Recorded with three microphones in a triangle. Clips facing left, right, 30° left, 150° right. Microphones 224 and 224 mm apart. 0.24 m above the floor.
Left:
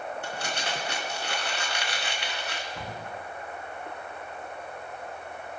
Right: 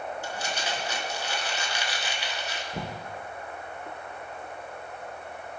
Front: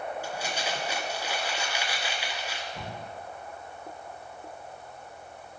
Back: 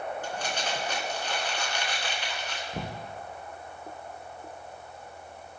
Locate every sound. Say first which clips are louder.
0.2 s crumpling: even, even; 110° left, 3 m
2.7 s knocking: right 3 dB, back 3 dB; 130° right, 3.5 m